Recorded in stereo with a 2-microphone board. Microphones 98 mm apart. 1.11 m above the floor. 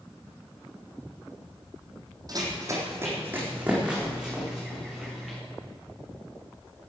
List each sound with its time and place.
2.3 s running footsteps: 40° right (ahead or behind), 3 m; by 5.4 s centre (ahead or behind), 6 m